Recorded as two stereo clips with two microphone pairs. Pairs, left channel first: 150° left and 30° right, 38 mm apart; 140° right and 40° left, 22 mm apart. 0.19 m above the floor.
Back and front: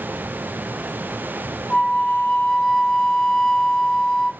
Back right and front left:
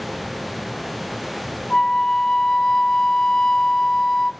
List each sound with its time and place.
1.7 s a flute: 155° right, 0.6 m